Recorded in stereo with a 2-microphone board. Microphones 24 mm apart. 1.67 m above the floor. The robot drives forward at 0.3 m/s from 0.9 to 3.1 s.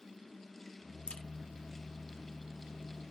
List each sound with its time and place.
1.1 s a crack: 40° left (ahead or behind), 1.0 m